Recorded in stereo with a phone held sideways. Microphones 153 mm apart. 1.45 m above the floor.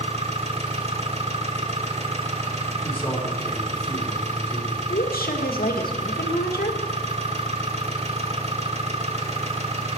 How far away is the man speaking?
About 4 m.